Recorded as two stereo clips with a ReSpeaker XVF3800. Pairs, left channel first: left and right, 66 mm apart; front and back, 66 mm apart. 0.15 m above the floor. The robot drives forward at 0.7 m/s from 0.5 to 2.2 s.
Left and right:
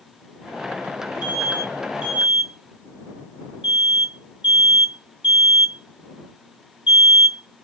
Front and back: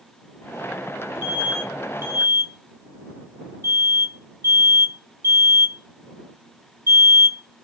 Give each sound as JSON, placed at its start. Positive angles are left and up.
{"t": 1.2, "sound": "an alarm", "azimuth_deg": -135, "distance_m": 1.1}